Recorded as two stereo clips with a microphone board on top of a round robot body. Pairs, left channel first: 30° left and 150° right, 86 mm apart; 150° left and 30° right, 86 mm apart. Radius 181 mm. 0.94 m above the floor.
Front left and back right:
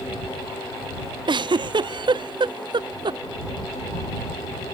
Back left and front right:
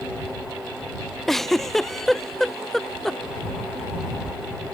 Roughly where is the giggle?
Behind right.